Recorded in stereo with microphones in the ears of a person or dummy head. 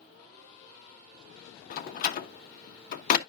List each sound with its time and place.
1.7 s a door slam: 55° left (ahead or behind), 1.0 m